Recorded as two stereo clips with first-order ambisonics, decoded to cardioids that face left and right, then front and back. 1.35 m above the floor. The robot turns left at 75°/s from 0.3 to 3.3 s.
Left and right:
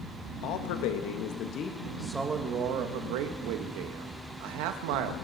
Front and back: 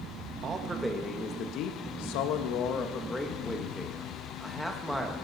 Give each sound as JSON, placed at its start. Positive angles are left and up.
{"t": 0.4, "sound": "a man speaking", "azimuth_deg": 125, "distance_m": 1.6}